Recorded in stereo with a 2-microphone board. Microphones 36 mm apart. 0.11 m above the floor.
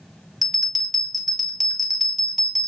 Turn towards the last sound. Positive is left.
turn(degrees=-5)  # may be behind; listen again after turning